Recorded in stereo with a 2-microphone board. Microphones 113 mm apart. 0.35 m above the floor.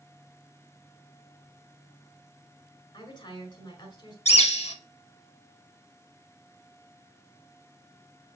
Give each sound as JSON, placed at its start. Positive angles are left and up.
{"t": 2.9, "sound": "a woman speaking", "side_deg": 40, "distance_m": 1.5}
{"t": 4.2, "sound": "a bird", "side_deg": 70, "distance_m": 0.6}